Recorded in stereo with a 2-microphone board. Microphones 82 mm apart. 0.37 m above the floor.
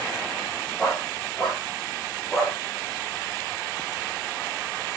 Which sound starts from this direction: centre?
A dog barking, at 0.8 s.